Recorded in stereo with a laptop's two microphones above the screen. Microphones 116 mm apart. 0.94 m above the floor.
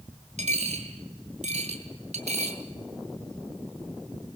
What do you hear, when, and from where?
0.4 s a dropped coin: 80° right, 2.5 m